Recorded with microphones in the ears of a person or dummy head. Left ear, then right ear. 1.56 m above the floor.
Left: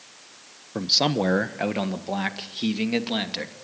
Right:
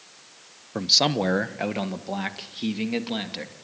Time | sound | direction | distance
0.8 | a man speaking | 15° right (ahead or behind) | 0.8 m